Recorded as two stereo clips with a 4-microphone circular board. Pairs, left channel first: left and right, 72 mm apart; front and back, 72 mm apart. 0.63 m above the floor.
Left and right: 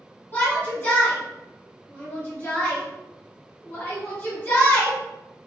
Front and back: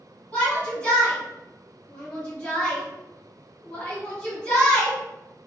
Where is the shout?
60° left, 1.4 m.